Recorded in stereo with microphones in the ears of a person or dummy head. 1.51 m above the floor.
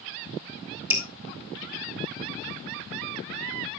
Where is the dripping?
10° right (ahead or behind), 1.7 m.